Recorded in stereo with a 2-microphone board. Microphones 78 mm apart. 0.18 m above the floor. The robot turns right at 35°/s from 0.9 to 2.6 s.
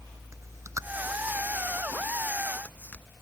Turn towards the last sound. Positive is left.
turn(degrees=20)  # may be behind; listen again after turning